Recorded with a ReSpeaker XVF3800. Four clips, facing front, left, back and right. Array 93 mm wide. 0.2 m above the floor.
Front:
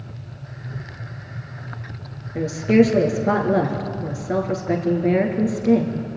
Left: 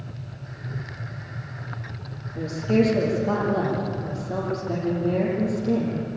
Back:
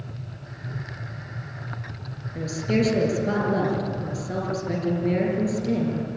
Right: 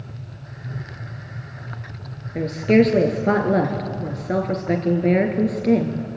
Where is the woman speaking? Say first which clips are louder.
Right 5 dB, front 8 dB; 65° right, 3.5 m.